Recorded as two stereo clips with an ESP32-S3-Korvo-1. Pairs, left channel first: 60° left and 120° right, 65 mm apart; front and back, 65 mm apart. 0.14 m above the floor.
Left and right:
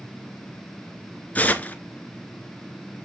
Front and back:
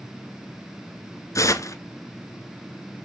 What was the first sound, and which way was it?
Tearing paper, straight ahead.